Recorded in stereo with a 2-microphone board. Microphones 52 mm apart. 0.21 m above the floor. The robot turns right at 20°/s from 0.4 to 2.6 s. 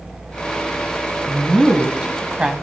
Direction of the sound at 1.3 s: 20° right (ahead or behind).